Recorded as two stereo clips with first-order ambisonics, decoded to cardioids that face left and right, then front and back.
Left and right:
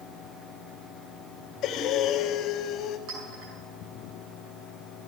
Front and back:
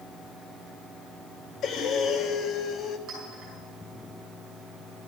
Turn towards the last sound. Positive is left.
turn(degrees=-120)